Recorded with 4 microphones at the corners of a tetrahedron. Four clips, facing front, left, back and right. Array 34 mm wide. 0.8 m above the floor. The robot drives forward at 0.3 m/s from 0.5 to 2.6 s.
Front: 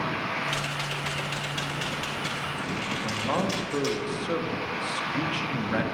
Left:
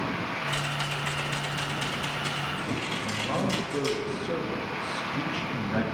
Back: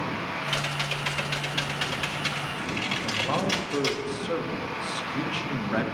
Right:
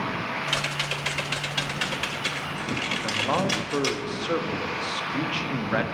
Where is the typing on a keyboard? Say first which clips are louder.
Right 5 dB, back 1 dB; 100° right, 2 m; by 4.0 s 115° right, 2.5 m.